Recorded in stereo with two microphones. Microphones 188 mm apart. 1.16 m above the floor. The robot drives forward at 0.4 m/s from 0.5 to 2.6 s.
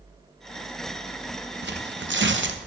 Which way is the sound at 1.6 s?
65° right (ahead or behind).